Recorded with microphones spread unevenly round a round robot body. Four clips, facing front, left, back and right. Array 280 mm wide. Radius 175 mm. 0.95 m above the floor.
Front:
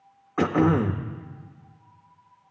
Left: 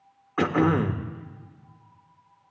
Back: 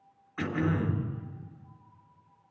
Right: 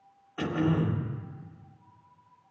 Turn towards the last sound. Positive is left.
turn(degrees=35)